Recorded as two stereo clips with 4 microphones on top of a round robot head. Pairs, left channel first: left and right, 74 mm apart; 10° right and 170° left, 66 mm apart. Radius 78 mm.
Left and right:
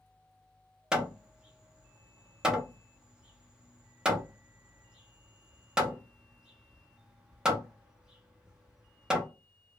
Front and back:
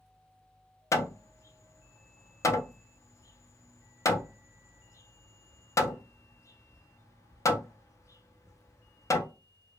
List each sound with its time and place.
0.9 s hammering: 15° right, 0.8 m